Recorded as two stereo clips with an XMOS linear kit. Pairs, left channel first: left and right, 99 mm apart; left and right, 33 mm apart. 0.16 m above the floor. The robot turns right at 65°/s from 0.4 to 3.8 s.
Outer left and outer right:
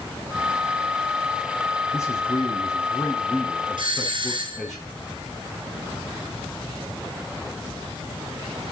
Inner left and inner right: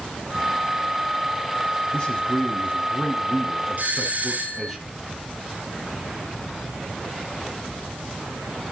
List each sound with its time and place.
1.9 s a man speaking: 60° left, 1.3 m; by 4.8 s straight behind, 1.3 m
3.8 s a doorbell: 50° right (ahead or behind), 2.5 m